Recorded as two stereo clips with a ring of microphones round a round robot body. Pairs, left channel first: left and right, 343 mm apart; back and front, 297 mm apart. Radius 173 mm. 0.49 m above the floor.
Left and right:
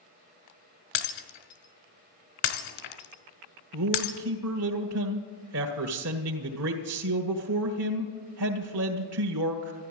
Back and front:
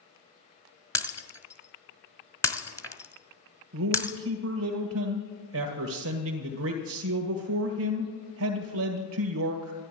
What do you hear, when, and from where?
0.9 s breaking glass: 100° left, 1.8 m
3.7 s a man speaking: 45° right, 1.7 m